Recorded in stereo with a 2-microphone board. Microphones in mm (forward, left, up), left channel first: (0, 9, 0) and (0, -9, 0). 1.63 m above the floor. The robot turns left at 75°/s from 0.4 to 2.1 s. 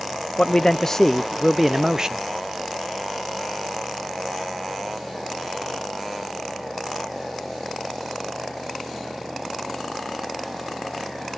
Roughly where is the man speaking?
Left.